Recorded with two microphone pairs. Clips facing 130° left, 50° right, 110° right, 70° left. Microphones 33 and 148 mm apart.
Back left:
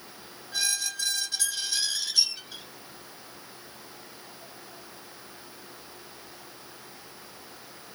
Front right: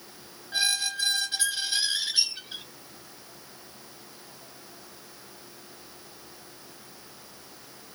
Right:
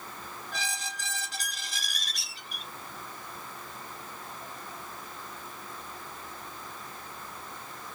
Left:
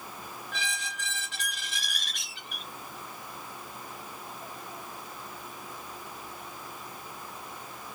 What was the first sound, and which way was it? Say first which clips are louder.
A squeak: front right 3 dB, even; 90° right.